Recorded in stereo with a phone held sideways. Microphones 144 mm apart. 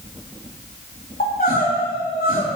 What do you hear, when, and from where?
1.2 s crying: 85° left, 2.5 m